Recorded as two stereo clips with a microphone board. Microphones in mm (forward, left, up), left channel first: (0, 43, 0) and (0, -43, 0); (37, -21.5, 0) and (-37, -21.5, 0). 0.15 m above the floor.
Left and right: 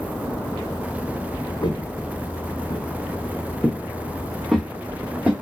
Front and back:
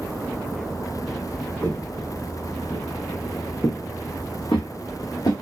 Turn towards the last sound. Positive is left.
turn(degrees=-15)